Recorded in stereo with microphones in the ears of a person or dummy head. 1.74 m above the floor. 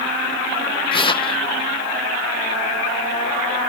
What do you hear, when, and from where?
0.9 s tearing paper: 30° left (ahead or behind)